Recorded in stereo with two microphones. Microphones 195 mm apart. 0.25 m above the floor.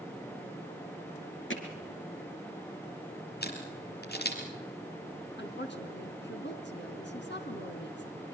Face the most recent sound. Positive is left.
turn(degrees=65)  # may be behind; listen again after turning